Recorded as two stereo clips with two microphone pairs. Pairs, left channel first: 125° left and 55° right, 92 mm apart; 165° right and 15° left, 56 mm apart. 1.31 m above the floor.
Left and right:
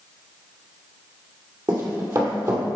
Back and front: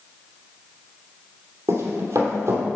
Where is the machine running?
No machine running in this recording.